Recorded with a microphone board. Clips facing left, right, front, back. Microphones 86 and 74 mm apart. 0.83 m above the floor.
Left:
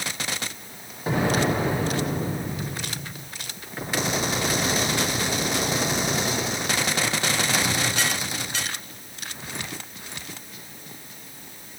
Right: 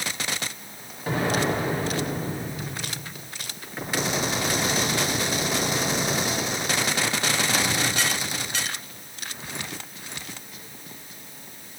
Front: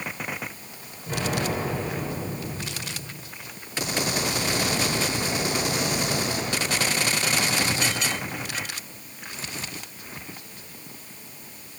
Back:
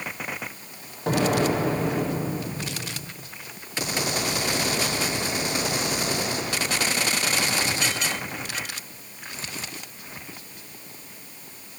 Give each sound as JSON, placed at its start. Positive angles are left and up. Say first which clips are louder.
{"t": 1.1, "sound": "an explosion", "louder": "left 2 dB, back 6 dB", "azimuth_deg": 165, "distance_m": 7.0}